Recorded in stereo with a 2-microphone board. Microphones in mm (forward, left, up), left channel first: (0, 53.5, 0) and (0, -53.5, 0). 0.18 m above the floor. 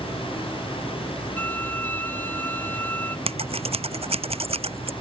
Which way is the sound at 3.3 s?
60° right (ahead or behind).